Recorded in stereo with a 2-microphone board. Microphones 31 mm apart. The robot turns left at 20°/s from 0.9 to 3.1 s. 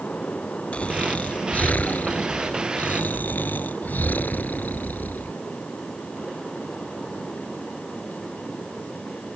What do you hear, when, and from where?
0.7 s snoring: 135° left; by 5.3 s 90° left